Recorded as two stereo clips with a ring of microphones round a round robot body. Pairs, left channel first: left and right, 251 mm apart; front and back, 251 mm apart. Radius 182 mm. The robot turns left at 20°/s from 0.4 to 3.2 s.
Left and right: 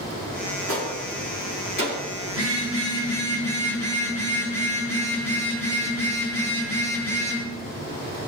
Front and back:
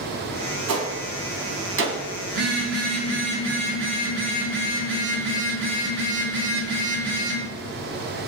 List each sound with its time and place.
0.7 s a gunshot: 170° left, 2.5 m; by 2.0 s 145° left, 2.5 m
2.3 s a phone buzzing: 160° left, 4.5 m; by 7.4 s 145° left, 4.5 m